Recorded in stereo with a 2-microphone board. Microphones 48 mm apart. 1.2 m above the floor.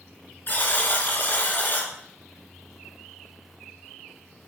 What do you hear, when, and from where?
0.5 s a buzzer: 40° left (ahead or behind), 3 m